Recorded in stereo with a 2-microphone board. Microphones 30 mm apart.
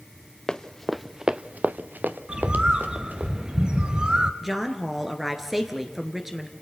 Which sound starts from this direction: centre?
A woman speaking, at 4.4 s.